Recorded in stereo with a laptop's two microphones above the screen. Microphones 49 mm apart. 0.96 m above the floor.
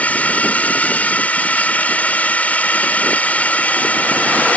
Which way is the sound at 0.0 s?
30° left (ahead or behind).